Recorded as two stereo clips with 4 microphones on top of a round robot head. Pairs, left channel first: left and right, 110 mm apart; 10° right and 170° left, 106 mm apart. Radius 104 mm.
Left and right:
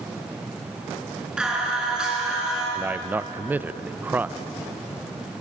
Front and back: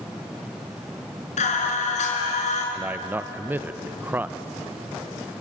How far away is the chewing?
No chewing in this recording.